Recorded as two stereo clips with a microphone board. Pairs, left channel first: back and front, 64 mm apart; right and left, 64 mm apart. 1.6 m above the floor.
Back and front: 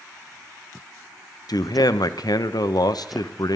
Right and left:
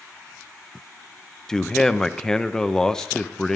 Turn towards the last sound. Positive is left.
turn(degrees=-170)